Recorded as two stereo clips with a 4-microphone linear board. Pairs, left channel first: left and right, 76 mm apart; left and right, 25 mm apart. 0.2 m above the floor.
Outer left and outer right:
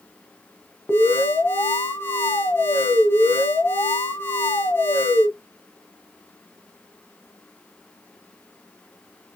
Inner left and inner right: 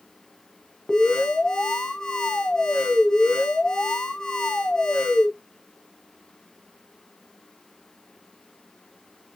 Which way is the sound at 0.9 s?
30° left (ahead or behind).